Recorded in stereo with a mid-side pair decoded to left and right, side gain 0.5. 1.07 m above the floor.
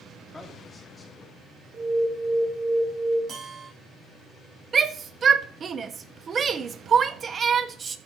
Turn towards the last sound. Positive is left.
turn(degrees=-40)